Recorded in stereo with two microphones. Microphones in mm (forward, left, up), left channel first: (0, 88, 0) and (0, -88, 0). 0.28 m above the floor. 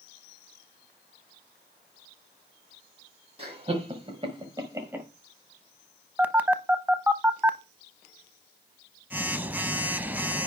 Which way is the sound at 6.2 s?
10° right (ahead or behind).